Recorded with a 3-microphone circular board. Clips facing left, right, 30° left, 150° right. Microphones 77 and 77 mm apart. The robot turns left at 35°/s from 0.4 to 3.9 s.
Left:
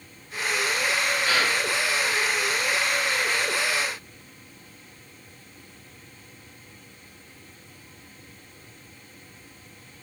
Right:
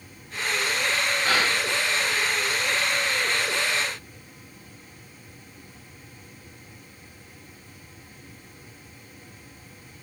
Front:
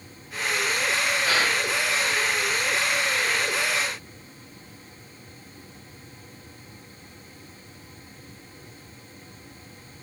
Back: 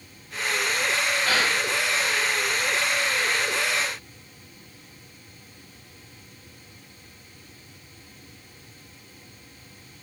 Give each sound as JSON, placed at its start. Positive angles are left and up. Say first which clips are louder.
{"t": 1.2, "sound": "a gasp", "louder": "right 1 dB, even", "azimuth_deg": -50, "distance_m": 1.2}